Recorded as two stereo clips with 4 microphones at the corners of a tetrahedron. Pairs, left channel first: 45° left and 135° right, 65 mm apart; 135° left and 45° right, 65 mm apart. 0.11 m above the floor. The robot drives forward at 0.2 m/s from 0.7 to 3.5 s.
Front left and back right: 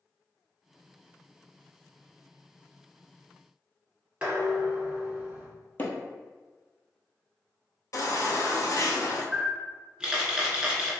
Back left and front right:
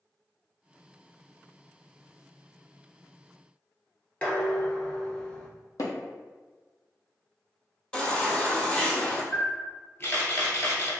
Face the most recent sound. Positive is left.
turn(degrees=155)